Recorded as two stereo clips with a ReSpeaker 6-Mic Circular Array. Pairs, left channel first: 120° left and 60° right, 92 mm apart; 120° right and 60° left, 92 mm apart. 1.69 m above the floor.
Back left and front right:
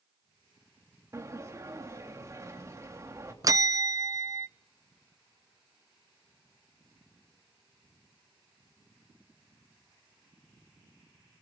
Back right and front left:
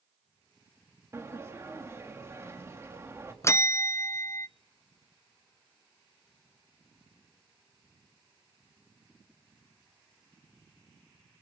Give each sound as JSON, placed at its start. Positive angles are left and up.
{"t": 1.1, "sound": "a sliding door", "azimuth_deg": 0, "distance_m": 3.5}
{"t": 3.4, "sound": "a bell", "azimuth_deg": -80, "distance_m": 0.6}